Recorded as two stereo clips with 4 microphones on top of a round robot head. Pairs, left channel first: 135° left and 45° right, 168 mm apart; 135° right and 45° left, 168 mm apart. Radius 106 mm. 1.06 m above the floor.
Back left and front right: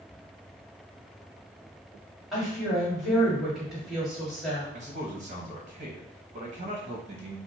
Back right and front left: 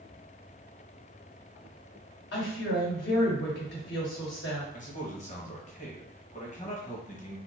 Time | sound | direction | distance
2.3 | a woman speaking | 135° right | 1.9 m
4.7 | a man speaking | 90° right | 1.2 m